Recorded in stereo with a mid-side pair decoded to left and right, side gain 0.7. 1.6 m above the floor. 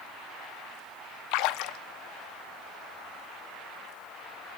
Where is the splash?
65° left, 0.8 m.